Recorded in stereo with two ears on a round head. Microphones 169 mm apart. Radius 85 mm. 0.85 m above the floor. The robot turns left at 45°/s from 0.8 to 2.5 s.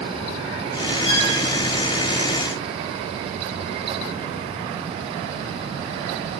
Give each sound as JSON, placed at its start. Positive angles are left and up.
{"t": 1.1, "sound": "a violin", "side_deg": 80, "distance_m": 3.0}